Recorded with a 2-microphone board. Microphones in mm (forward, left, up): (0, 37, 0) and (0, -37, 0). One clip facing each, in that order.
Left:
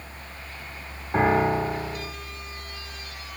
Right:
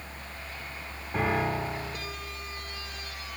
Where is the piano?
45° left (ahead or behind), 1.2 m.